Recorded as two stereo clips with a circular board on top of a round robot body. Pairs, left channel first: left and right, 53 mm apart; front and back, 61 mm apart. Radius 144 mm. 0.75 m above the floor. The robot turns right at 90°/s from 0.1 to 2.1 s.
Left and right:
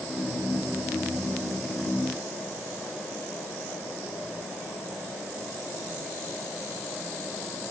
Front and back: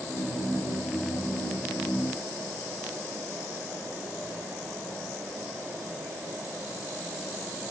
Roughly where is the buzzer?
I don't hear a buzzer.